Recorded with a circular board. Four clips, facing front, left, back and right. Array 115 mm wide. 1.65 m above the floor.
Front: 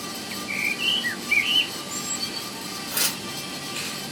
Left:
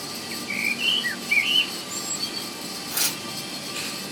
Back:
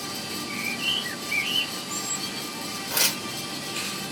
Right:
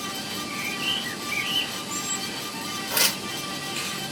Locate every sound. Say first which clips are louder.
0.3 s a bird: left 1 dB, front 2 dB; 45° left, 0.5 m
2.9 s tearing paper: right 6 dB, back 3 dB; 115° right, 1.5 m